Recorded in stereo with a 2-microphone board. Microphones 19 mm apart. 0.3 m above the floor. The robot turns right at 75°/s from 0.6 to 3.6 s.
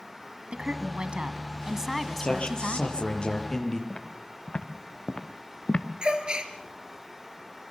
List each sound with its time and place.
0.5 s a woman speaking: 115° right, 2 m; by 3.1 s 70° left, 2 m
2.2 s a man speaking: 50° left, 6 m; by 3.8 s 155° left, 6 m
3.9 s footsteps: 35° left (ahead or behind), 3.5 m; by 5.9 s 55° left (ahead or behind), 1.6 m
6.0 s a gasp: 40° right (ahead or behind), 3 m